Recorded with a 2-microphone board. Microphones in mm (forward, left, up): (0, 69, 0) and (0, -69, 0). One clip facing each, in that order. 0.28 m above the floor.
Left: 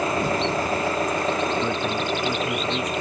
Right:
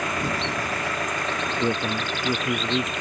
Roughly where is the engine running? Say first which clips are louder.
Left 5 dB; left.